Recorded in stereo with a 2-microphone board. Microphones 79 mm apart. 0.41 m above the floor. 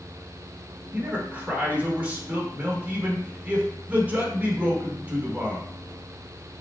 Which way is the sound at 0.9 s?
20° right (ahead or behind).